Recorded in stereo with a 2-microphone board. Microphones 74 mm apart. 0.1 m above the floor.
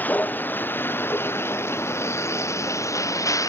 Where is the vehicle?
25° left (ahead or behind); by 3.5 s 45° left (ahead or behind).